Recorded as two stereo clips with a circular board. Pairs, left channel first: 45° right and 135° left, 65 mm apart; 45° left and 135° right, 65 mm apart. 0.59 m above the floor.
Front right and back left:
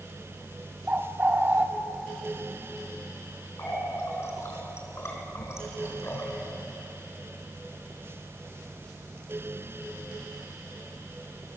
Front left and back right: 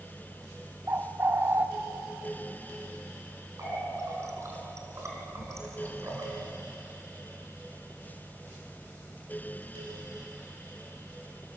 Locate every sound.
0.9 s a bird: 170° right, 1.3 m
3.6 s a running tap: 90° right, 4 m